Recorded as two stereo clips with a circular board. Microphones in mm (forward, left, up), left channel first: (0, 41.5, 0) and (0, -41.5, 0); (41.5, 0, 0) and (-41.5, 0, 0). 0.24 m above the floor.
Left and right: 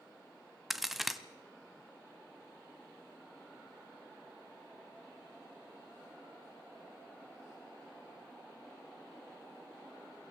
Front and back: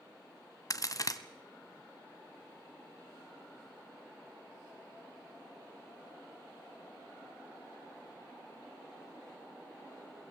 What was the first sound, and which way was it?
A crack, 5° right.